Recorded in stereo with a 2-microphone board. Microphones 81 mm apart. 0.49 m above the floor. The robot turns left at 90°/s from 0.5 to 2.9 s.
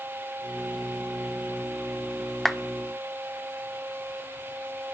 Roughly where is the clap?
Centre.